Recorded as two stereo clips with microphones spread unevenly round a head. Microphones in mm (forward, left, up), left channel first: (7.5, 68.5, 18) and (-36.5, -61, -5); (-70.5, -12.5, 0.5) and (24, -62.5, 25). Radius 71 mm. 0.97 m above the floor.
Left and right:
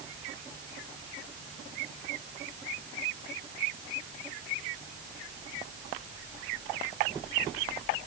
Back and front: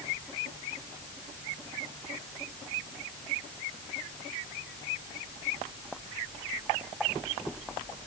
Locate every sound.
Only background noise.